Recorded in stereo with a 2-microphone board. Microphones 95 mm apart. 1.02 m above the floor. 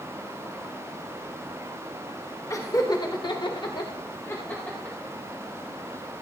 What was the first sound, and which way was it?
Laughter, 35° left (ahead or behind).